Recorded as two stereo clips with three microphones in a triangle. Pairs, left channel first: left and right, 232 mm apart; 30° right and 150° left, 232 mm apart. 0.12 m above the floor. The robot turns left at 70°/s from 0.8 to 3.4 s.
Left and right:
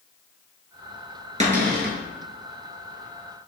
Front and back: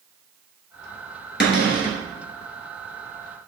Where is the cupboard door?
40° right, 1.0 m; by 2.0 s 80° right, 1.0 m.